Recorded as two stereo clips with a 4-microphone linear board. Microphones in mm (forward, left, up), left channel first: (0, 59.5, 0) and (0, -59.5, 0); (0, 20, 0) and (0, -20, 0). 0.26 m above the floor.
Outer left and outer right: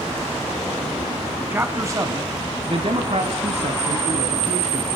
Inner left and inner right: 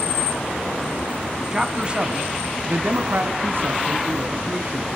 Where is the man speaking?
15° right (ahead or behind), 2.5 m; by 4.9 s 60° right (ahead or behind), 3.5 m.